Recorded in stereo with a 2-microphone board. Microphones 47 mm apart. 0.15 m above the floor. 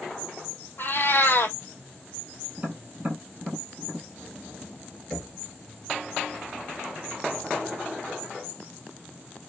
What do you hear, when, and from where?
0.8 s a cat meowing: 50° left (ahead or behind), 0.8 m
2.6 s tapping: 30° right (ahead or behind), 2.5 m
5.1 s knocking: 5° left (ahead or behind), 1.9 m